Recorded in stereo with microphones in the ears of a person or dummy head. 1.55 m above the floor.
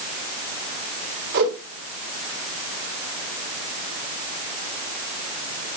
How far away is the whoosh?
About 5.5 m.